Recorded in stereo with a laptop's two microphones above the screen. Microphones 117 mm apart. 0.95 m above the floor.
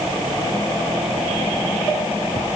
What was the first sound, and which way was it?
Only background noise.